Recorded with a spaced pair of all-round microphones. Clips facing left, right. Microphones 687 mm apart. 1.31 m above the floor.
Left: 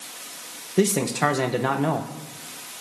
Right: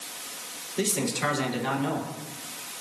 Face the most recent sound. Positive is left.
turn(degrees=75)  # may be behind; listen again after turning